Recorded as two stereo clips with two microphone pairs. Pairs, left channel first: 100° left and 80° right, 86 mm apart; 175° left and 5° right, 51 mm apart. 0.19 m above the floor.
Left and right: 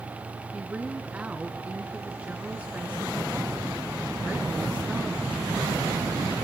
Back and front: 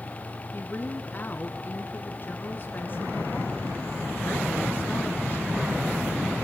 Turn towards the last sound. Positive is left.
turn(degrees=-145)